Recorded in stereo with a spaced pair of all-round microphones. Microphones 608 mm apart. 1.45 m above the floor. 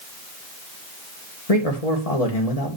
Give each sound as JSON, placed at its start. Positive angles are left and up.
{"t": 1.5, "sound": "a man speaking", "side_deg": 75, "distance_m": 2.0}